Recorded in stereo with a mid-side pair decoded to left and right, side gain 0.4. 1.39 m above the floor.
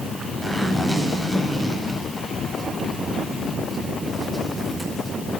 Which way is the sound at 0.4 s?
20° right.